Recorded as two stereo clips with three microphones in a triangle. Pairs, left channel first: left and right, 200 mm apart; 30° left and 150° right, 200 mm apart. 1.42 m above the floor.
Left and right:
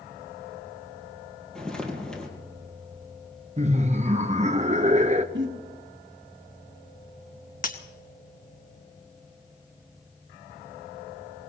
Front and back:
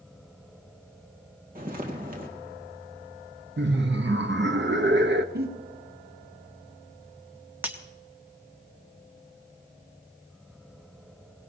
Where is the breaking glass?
130° left, 1.3 m.